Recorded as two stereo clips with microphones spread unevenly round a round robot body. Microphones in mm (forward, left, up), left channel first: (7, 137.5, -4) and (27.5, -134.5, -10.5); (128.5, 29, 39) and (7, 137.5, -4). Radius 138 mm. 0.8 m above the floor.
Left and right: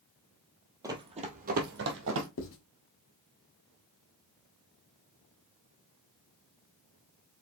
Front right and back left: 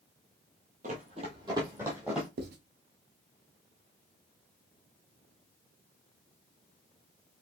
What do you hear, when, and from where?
0.8 s running footsteps: 160° right, 1.1 m; by 2.3 s 125° right, 1.6 m
2.4 s writing: 140° left, 1.1 m